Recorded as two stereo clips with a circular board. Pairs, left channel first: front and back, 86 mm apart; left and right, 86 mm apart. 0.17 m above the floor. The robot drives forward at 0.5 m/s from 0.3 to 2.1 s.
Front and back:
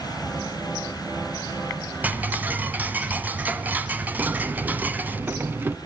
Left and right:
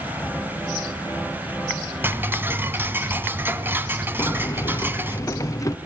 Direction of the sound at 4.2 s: 125° left.